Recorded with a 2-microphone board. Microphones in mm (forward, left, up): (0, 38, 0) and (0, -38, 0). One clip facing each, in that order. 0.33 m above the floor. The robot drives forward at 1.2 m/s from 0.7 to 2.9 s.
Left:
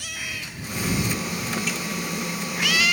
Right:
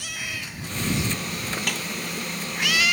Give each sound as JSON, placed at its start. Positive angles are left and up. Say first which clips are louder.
{"t": 1.7, "sound": "a snare drum", "louder": "left 1 dB", "side_deg": -60}